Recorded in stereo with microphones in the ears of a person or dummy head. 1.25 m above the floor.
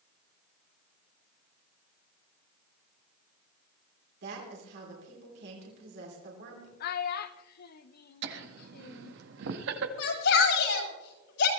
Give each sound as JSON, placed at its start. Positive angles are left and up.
{"t": 4.2, "sound": "a woman speaking", "side_deg": -70, "distance_m": 3.5}
{"t": 6.8, "sound": "a child speaking", "side_deg": 55, "distance_m": 0.8}
{"t": 8.2, "sound": "laughter", "side_deg": -70, "distance_m": 1.5}
{"t": 10.0, "sound": "a shout", "side_deg": 75, "distance_m": 7.0}